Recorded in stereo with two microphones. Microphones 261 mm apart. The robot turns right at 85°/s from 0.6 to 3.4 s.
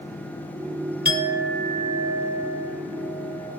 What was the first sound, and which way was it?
A clink, 45° right.